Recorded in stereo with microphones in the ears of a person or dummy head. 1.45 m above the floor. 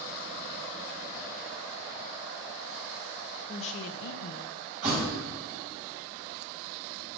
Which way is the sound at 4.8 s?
45° right (ahead or behind).